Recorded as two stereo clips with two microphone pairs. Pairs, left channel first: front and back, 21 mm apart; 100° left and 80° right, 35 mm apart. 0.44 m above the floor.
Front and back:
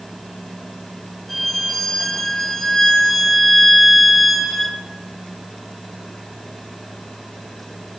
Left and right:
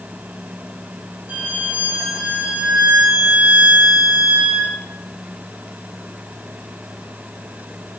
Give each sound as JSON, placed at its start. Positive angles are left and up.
{"t": 1.3, "sound": "a violin", "azimuth_deg": -80, "distance_m": 2.5}